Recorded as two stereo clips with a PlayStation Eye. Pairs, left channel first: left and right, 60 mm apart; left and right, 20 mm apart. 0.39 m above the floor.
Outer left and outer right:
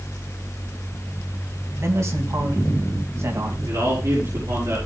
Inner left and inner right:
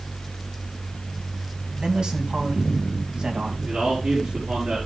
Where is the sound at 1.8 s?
55° right (ahead or behind), 3.5 m.